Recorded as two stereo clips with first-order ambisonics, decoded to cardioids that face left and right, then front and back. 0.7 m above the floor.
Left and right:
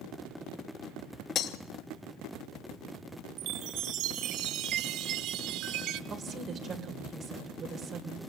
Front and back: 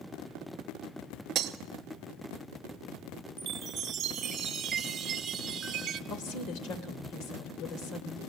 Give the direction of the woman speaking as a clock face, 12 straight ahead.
1 o'clock.